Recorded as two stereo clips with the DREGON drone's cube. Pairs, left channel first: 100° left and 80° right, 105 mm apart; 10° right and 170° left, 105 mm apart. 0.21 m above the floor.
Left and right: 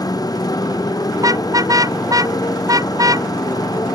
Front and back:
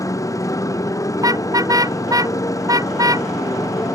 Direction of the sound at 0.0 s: 50° left.